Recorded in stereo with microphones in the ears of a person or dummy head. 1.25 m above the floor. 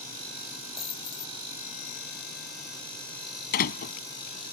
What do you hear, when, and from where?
0.8 s a dropped coin: 25° left (ahead or behind)
3.5 s a door slam: 50° left (ahead or behind)